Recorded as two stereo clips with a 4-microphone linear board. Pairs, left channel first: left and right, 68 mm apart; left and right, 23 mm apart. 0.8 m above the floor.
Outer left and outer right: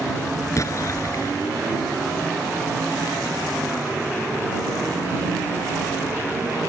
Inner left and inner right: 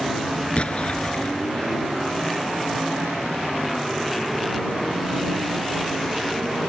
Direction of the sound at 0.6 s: 45° left (ahead or behind).